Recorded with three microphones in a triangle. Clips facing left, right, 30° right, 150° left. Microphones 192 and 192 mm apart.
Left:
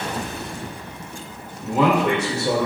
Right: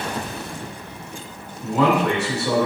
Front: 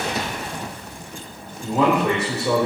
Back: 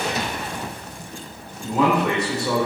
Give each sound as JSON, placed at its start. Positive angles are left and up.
{"t": 1.6, "sound": "a man speaking", "azimuth_deg": 50, "distance_m": 1.2}